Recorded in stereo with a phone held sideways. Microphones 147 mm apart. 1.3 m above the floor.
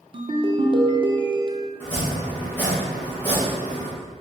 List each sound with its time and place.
0.1 s a ringtone: 35° right (ahead or behind), 0.5 m
1.8 s chopping: 15° left (ahead or behind), 1.6 m